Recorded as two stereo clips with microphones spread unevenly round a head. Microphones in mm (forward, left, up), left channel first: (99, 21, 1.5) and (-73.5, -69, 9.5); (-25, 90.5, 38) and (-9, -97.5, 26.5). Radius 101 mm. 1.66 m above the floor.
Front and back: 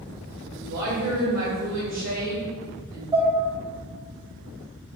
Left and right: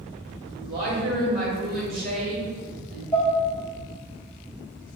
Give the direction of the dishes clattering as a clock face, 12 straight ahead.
7 o'clock.